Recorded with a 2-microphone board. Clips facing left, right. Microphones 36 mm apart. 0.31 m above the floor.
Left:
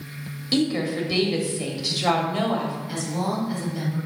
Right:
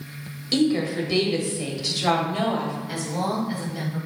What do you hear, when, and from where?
0.5 s a woman speaking: 5° left (ahead or behind), 1.1 m
2.9 s a woman speaking: 10° right (ahead or behind), 1.6 m